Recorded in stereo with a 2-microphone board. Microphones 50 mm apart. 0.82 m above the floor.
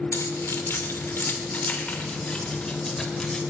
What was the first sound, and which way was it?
Keys jangling, 65° left (ahead or behind).